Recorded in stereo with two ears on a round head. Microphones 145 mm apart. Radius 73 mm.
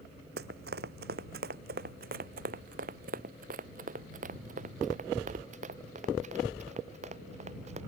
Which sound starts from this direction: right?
Running footsteps, at 0.4 s.